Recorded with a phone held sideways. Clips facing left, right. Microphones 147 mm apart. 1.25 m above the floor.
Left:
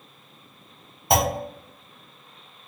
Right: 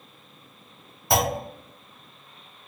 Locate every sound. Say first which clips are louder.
1.1 s a clunk: left 2 dB; 20° left (ahead or behind), 1.2 m